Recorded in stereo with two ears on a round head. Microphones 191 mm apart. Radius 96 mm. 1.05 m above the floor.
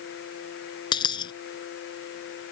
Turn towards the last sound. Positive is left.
turn(degrees=20)  # may be behind; listen again after turning